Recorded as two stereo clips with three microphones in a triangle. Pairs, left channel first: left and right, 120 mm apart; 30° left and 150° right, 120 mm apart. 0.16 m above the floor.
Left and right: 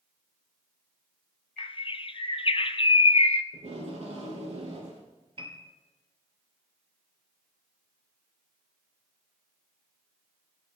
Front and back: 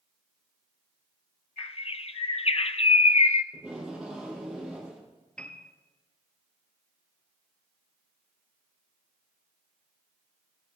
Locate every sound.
1.6 s a bird: 55° left, 0.6 m
3.5 s tape being pulled: 70° right, 6 m
5.4 s a piano: 50° right, 1.6 m